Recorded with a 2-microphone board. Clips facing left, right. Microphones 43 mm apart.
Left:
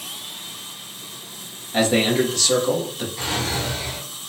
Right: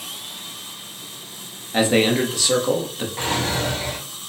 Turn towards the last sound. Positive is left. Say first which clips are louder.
# right 3 dB
turn(degrees=-50)  # may be behind; listen again after turning